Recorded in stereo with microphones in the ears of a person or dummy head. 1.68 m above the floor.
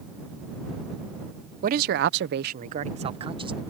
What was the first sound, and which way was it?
A man speaking, 55° right (ahead or behind).